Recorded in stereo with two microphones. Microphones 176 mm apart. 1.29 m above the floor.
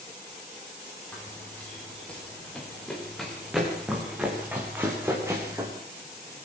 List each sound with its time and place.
1.1 s running footsteps: 10° left (ahead or behind), 9.5 m; by 5.7 s 20° right (ahead or behind), 6 m